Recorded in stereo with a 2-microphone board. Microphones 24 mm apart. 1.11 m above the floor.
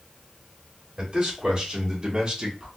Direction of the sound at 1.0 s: 30° right (ahead or behind).